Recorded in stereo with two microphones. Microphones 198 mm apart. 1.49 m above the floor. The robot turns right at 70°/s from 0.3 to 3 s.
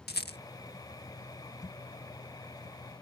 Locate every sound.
0.1 s a rattle: 55° left (ahead or behind); by 0.4 s 60° left (ahead or behind)